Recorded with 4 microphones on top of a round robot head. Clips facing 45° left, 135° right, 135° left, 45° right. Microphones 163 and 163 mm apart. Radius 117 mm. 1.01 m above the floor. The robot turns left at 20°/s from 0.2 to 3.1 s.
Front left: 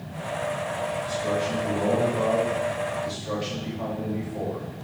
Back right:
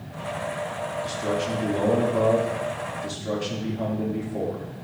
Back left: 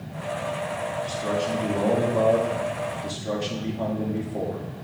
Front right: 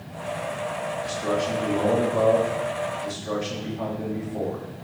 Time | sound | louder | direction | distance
1.0 | a man speaking | back right 1 dB, front right 2 dB | 130° right | 2.5 m